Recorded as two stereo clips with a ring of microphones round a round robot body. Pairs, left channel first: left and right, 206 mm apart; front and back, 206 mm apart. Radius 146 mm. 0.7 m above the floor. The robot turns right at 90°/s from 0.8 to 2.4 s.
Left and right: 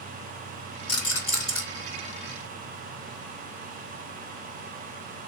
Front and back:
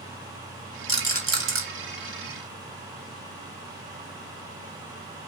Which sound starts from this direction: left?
A rattle, at 0.9 s.